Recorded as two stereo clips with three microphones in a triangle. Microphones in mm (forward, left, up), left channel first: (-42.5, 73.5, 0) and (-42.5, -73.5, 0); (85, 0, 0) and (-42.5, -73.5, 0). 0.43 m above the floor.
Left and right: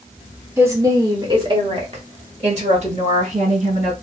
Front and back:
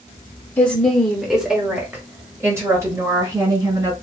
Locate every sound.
0.6 s a woman speaking: 40° right, 1.3 m; by 3.9 s 90° right, 2.5 m